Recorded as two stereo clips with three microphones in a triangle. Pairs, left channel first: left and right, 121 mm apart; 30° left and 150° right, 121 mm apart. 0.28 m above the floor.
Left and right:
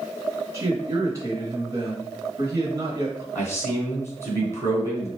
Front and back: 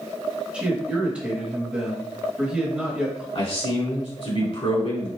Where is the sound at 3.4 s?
25° left, 2.5 m.